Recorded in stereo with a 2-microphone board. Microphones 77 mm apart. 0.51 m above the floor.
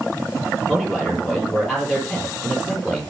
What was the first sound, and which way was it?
A man speaking, centre (ahead or behind).